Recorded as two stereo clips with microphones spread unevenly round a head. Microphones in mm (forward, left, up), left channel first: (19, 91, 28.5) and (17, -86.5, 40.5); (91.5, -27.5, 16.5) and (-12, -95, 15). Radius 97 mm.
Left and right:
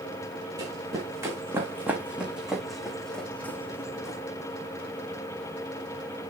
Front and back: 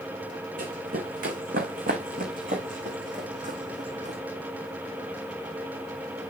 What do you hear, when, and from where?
0.6 s running footsteps: 160° right, 3.5 m; by 4.2 s 165° left, 2.5 m